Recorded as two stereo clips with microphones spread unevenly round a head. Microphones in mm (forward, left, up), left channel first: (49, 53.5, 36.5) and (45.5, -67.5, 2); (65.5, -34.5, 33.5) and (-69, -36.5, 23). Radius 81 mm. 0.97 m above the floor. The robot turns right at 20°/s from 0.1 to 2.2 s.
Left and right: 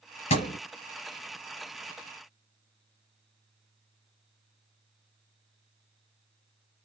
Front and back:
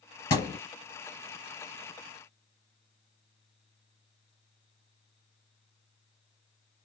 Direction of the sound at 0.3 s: 70° left.